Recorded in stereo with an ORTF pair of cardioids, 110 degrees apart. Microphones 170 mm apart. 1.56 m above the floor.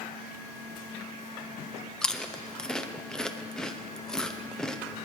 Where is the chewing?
5° left, 0.8 m.